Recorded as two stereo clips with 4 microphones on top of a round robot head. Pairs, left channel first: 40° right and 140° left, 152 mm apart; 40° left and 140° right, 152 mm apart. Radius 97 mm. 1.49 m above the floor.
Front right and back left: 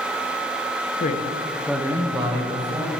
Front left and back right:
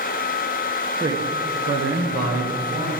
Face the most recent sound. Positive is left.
turn(degrees=-175)